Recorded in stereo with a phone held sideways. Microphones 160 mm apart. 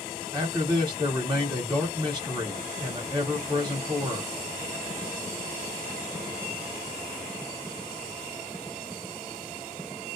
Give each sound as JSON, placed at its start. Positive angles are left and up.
{"t": 0.3, "sound": "a man speaking", "side_deg": -25, "distance_m": 1.1}